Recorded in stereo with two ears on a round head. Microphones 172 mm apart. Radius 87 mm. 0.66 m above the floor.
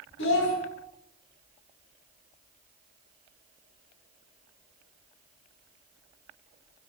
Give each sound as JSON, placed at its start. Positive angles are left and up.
{"t": 0.2, "sound": "a child speaking", "side_deg": 70, "distance_m": 1.1}